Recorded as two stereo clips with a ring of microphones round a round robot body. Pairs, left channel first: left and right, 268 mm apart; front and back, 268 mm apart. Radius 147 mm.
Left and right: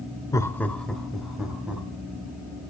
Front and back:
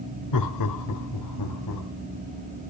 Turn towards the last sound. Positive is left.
turn(degrees=-5)